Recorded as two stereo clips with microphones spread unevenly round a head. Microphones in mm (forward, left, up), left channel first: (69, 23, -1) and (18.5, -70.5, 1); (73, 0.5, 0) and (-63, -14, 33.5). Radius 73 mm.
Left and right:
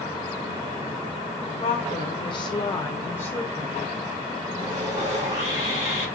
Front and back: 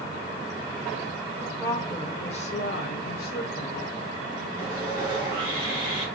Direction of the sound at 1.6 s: 95° left.